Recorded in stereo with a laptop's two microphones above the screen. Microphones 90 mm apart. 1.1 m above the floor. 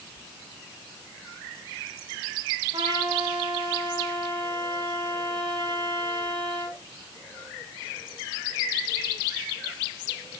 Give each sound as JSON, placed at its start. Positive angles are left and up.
{"t": 2.7, "sound": "a trumpet", "side_deg": -60, "distance_m": 7.5}